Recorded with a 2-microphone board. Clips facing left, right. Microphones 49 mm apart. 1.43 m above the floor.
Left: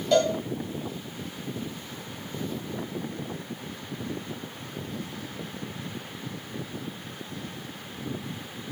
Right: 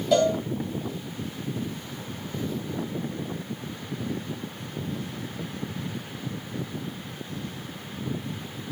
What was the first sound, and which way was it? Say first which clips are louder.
A cowbell: right 1 dB; centre (ahead or behind).